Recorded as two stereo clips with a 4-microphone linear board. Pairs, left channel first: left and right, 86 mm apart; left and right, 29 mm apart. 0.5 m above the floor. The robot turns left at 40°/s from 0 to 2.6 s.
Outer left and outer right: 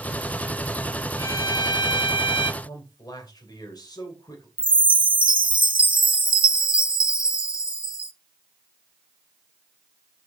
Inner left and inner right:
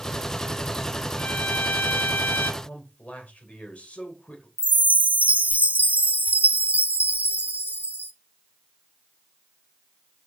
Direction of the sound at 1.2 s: 145° left.